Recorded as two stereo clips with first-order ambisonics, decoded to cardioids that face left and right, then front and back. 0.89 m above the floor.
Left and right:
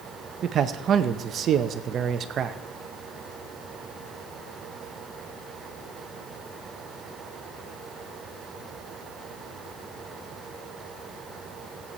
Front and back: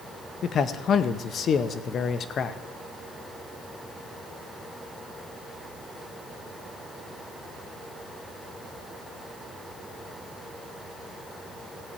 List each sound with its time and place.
0.4 s a man speaking: 45° right, 0.6 m